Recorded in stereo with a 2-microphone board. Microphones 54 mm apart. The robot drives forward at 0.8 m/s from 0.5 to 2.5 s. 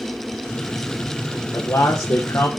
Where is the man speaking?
75° left (ahead or behind), 1.3 m; by 2.5 s 60° left (ahead or behind), 1.4 m.